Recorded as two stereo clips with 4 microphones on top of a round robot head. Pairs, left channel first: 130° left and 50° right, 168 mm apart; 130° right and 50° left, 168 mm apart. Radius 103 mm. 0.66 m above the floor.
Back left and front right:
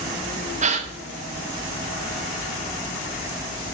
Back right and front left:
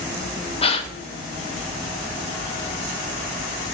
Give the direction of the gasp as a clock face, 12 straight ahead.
3 o'clock.